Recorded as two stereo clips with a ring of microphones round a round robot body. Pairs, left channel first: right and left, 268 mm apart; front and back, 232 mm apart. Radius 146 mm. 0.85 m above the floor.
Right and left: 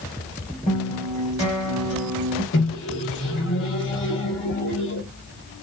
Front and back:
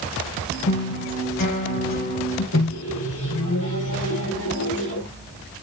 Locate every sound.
0.7 s a guitar: 25° right, 2.5 m
2.5 s a microwave: 40° right, 2 m